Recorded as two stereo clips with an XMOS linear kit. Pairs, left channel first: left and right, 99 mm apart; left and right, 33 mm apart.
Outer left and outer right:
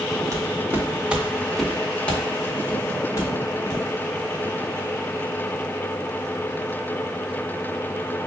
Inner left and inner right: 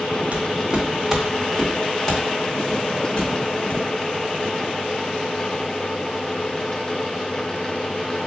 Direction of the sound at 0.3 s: 35° right (ahead or behind).